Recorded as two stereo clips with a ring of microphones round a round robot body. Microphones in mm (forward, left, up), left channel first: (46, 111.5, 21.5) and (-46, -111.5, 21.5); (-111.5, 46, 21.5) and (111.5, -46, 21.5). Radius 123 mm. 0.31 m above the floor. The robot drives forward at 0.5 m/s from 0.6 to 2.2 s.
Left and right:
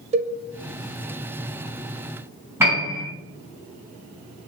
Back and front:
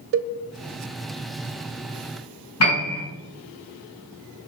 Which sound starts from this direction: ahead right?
A cowbell, at 0.1 s.